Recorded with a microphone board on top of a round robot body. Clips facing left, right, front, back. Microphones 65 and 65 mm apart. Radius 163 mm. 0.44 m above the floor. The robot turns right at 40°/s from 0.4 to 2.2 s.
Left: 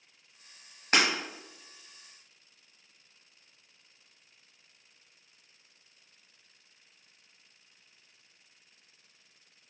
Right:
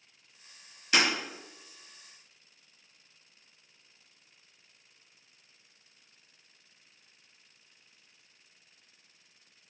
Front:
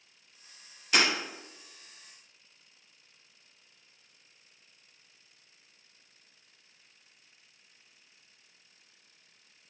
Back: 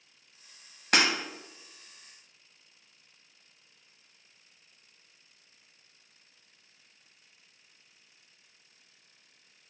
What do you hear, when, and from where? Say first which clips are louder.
0.9 s breaking glass: left 1 dB, back 1 dB; 140° left, 0.8 m; by 1.1 s 145° left, 0.8 m